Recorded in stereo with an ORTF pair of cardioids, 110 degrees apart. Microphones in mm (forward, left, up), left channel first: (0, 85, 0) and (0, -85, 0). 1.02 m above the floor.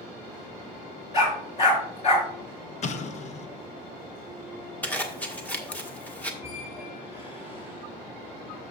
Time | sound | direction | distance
1.1 | a dog barking | 40° left | 3.5 m
2.8 | an explosion | 45° left | 0.9 m
4.8 | a zipper | 10° left | 1.6 m
6.4 | a squeak | 35° left | 4.5 m